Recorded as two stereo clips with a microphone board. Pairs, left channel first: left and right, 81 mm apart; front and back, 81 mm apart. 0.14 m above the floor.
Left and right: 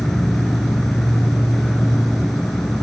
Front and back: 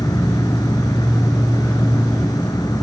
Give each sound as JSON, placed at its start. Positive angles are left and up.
{"t": 0.0, "sound": "an insect", "azimuth_deg": 5, "distance_m": 0.7}